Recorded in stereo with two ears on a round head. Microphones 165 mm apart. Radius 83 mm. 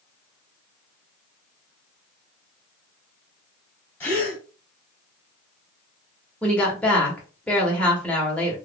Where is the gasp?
10° left (ahead or behind), 1.7 m.